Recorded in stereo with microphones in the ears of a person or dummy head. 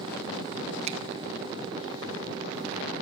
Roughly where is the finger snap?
Right.